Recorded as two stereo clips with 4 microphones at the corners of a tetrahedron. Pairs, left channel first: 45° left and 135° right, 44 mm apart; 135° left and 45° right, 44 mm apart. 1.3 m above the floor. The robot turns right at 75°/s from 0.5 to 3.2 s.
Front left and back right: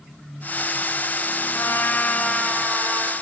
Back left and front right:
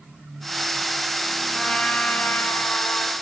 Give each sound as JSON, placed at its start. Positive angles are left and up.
{"t": 1.5, "sound": "a trumpet", "azimuth_deg": 55, "distance_m": 4.5}